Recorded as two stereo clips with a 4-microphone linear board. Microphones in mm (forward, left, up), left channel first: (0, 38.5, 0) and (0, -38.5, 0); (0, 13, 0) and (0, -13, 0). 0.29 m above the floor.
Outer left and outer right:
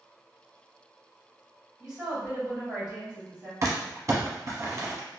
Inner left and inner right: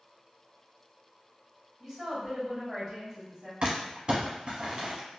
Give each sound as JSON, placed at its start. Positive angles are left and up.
{"t": 1.8, "sound": "a woman speaking", "side_deg": -10, "distance_m": 1.4}
{"t": 3.6, "sound": "crumpling", "side_deg": -45, "distance_m": 0.8}